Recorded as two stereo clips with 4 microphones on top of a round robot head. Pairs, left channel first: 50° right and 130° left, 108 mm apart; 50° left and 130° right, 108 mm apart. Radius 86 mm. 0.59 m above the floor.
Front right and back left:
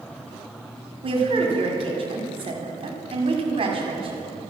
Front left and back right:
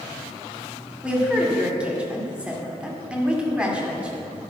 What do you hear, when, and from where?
1.0 s a woman speaking: 150° left, 1.9 m